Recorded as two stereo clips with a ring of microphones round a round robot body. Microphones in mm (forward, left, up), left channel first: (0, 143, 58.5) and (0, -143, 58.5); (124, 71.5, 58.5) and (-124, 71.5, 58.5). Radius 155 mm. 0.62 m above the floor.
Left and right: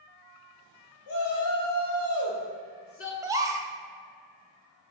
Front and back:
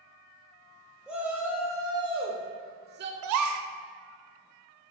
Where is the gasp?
170° right, 0.6 m.